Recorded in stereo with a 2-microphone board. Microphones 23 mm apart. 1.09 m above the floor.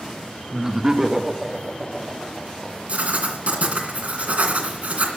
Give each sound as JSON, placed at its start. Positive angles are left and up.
{"t": 0.5, "sound": "laughter", "side_deg": -30, "distance_m": 1.1}
{"t": 2.9, "sound": "writing", "side_deg": -65, "distance_m": 2.5}